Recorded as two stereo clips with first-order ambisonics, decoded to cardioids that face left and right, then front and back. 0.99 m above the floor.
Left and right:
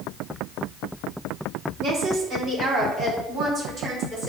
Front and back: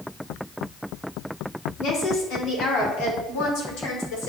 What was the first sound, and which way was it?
A woman speaking, 40° right.